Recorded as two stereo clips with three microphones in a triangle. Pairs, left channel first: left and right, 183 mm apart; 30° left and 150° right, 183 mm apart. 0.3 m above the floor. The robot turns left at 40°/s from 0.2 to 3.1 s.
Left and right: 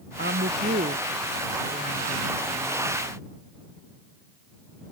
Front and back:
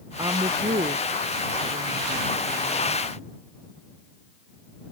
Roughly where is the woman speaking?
Right.